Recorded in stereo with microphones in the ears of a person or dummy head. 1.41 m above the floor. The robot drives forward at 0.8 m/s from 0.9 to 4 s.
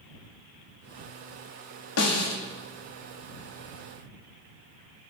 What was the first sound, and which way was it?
A snare drum, 80° left.